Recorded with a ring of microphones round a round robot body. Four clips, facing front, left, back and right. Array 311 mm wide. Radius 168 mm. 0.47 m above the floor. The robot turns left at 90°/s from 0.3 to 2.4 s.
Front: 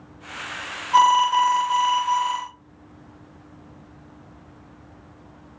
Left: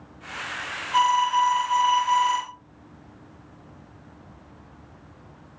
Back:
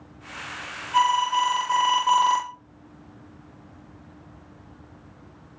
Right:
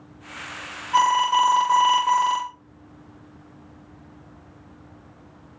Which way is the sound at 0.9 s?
25° right.